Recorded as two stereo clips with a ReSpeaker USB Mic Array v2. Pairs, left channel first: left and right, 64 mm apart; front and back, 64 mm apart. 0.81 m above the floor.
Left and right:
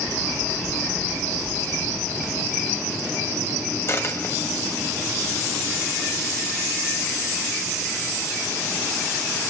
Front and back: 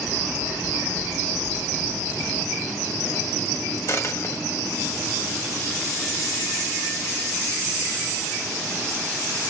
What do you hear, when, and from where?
3.9 s a dropped coin: 40° left, 1.7 m